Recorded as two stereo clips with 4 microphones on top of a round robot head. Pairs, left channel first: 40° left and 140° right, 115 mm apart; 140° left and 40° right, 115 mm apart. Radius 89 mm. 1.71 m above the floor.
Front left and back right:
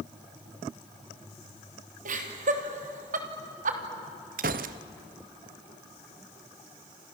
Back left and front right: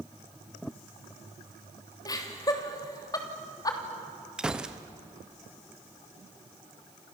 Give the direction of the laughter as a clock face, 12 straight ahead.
5 o'clock.